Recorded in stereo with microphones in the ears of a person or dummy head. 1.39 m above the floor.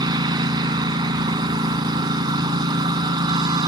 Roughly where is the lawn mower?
Right.